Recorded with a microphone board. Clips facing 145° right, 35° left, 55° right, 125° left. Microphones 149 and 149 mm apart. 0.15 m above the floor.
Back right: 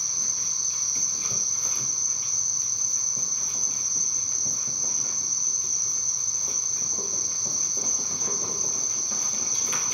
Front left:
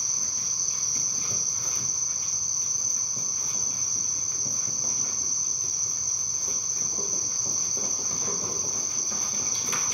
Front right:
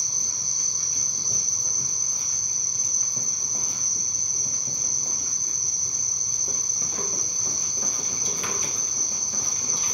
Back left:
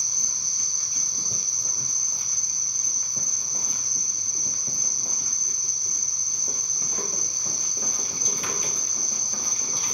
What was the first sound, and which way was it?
An insect, 80° right.